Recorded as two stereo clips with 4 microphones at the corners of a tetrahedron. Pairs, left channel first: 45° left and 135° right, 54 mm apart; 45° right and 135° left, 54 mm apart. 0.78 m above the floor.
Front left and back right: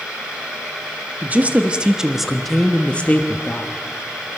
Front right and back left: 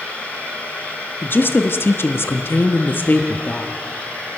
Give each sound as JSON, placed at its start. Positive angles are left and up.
{"t": 1.2, "sound": "a woman speaking", "azimuth_deg": -85, "distance_m": 1.4}